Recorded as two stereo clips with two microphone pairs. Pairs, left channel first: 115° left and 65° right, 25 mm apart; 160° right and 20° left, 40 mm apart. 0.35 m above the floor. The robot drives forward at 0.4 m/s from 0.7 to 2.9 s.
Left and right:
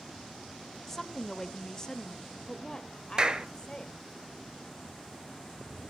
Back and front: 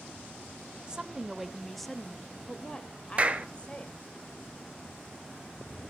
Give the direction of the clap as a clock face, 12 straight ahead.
1 o'clock.